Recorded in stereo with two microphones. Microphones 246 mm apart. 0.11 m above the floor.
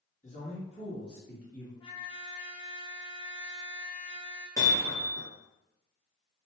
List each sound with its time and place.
0.2 s a man speaking: 30° left (ahead or behind), 1.6 m; by 1.7 s 15° left (ahead or behind), 1.6 m
1.8 s a trumpet: 20° left (ahead or behind), 0.9 m
4.6 s hammering: 15° left (ahead or behind), 1.3 m